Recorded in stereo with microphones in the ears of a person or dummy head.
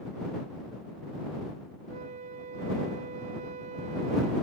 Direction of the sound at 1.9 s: 35° right (ahead or behind).